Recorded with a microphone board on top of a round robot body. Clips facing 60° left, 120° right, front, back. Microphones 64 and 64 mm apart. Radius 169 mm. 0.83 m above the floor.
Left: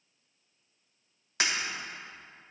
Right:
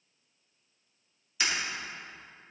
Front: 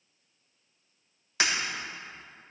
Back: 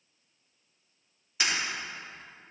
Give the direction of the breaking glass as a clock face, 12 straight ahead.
11 o'clock.